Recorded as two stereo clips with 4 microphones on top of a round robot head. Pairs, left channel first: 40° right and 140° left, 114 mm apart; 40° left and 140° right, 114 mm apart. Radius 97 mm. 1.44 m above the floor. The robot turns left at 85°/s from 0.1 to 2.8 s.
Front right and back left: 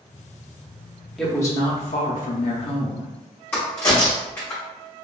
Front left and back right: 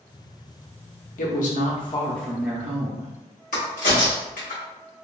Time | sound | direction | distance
1.2 | a woman speaking | 45° left | 0.7 m
3.5 | a crack | 35° left | 0.9 m